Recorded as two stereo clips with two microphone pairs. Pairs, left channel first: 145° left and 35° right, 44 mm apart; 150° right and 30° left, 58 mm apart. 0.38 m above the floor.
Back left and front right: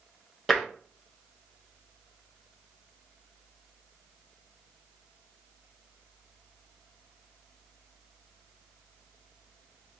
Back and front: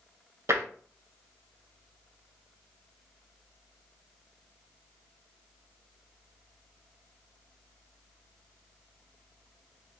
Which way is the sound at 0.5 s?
50° left.